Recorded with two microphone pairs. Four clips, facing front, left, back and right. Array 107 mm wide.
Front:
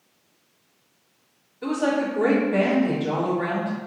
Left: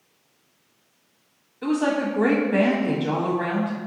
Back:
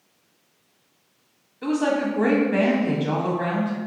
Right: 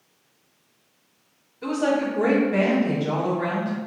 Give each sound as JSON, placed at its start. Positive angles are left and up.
{"t": 1.6, "sound": "a woman speaking", "azimuth_deg": 130, "distance_m": 1.0}